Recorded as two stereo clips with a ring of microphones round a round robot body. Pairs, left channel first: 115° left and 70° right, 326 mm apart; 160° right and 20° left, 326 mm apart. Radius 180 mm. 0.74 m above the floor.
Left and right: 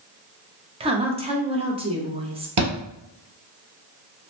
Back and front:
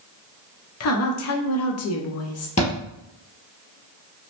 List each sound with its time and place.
0.8 s a woman speaking: 135° right, 0.7 m
2.6 s a thud: 85° right, 1.5 m